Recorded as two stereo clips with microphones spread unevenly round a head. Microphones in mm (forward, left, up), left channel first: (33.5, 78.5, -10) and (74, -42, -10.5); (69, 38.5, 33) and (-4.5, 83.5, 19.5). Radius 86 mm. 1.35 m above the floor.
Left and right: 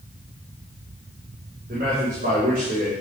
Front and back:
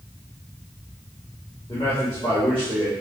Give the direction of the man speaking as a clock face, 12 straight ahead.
3 o'clock.